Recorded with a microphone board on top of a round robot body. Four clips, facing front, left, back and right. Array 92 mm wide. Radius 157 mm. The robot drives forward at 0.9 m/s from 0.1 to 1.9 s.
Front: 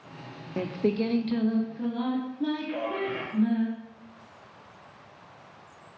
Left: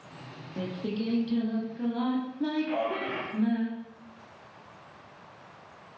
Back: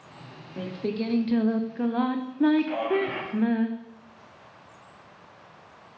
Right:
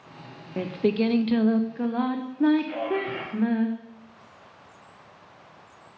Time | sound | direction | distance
0.6 | singing | 45° right | 0.9 m
2.7 | a man speaking | 170° left | 4.5 m